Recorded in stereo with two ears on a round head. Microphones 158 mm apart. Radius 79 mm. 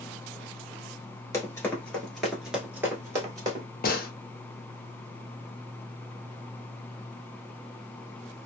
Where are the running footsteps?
15° left (ahead or behind), 1.6 m; by 3.6 s 25° right (ahead or behind), 1.6 m.